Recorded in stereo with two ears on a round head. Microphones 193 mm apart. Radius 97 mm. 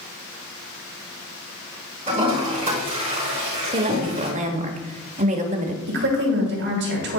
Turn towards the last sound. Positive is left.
turn(degrees=-55)  # may be behind; listen again after turning